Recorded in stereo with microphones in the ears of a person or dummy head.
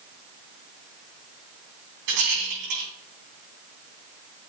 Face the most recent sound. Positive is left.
turn(degrees=-60)  # may be behind; listen again after turning